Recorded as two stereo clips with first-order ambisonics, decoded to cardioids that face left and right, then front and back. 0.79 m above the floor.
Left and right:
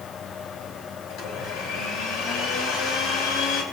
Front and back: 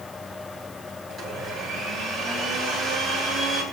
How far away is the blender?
About 3.5 m.